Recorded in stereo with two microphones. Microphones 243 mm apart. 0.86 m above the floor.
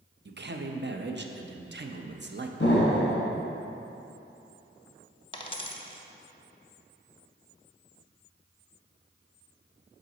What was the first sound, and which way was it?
A man speaking, 50° right (ahead or behind).